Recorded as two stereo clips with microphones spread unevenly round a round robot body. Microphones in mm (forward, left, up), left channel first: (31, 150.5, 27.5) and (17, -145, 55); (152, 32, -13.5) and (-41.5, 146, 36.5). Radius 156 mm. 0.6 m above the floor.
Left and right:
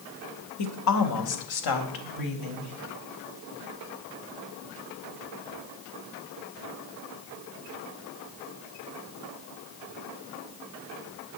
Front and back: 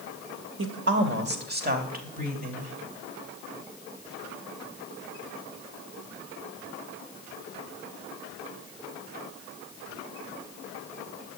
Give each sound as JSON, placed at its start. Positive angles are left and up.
{"t": 0.6, "sound": "a woman speaking", "azimuth_deg": 115, "distance_m": 2.0}